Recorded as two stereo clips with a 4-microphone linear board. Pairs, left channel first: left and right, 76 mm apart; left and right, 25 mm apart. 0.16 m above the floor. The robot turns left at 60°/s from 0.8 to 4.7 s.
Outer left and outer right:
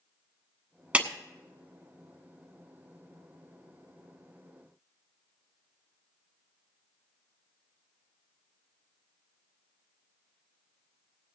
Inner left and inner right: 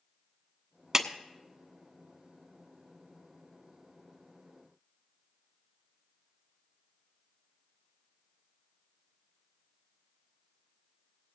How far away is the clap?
About 0.8 m.